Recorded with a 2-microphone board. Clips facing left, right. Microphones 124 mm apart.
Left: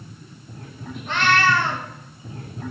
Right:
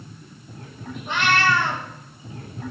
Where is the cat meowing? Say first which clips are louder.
Left 1 dB; 15° right (ahead or behind), 2.5 m.